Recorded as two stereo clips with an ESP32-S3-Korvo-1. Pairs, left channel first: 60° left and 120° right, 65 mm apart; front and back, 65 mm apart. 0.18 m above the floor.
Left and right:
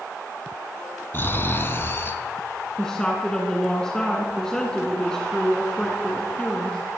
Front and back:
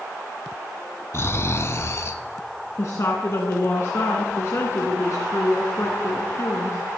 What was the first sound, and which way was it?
Snoring, 20° left.